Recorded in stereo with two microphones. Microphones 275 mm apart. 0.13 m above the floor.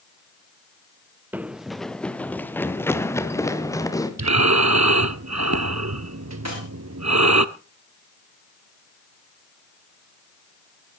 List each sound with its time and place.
1.3 s running footsteps: 5° right (ahead or behind), 0.7 m; by 4.1 s 10° left (ahead or behind), 2.5 m
4.2 s breathing: 70° right (ahead or behind), 0.6 m
6.5 s a dropped coin: 65° right (ahead or behind), 6.5 m